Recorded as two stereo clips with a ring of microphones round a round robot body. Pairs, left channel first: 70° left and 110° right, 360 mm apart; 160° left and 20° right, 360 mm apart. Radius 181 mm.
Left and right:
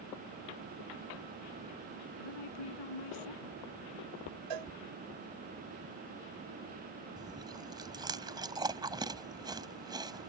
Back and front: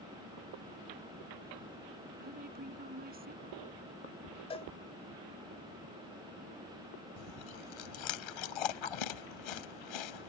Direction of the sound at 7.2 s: 170° left.